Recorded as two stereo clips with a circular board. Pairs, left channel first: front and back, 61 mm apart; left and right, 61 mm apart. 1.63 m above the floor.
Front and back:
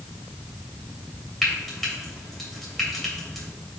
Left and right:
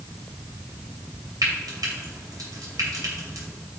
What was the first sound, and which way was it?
Frying, 85° right.